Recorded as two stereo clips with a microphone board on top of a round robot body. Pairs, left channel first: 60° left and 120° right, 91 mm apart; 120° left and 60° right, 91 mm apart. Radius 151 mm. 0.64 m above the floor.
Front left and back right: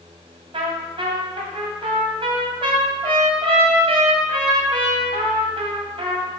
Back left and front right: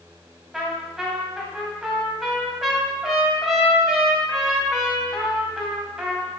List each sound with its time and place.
0.5 s a trumpet: 145° right, 1.5 m